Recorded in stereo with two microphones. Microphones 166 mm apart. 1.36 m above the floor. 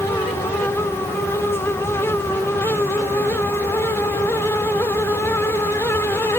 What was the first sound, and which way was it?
Only background noise.